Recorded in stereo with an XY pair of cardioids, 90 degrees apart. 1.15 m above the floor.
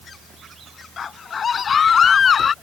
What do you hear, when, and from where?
1.0 s a scream: 55° left